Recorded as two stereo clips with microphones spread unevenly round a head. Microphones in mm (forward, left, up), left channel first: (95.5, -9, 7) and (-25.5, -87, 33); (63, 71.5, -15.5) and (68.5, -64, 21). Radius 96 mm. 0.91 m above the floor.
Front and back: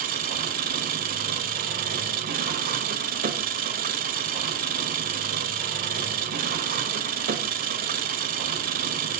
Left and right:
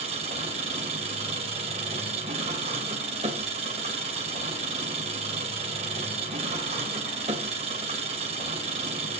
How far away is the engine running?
About 1.4 m.